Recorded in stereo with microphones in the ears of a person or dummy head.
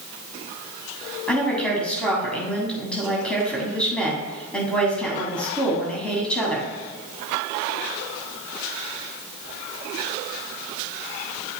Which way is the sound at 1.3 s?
5° left (ahead or behind).